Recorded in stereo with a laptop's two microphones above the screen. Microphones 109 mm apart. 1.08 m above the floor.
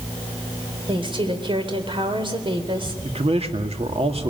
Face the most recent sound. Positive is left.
turn(degrees=-65)  # may be behind; listen again after turning